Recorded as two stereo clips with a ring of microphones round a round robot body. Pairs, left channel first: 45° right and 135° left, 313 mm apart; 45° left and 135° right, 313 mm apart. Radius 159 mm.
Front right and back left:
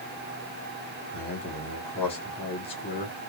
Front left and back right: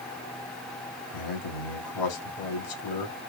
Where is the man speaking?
25° left, 2 m.